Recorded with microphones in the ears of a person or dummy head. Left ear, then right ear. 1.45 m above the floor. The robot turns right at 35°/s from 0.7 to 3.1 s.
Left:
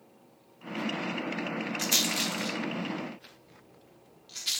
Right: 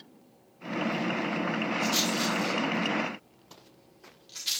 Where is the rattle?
45° left (ahead or behind), 1.2 m; by 4.6 s centre (ahead or behind), 1.2 m.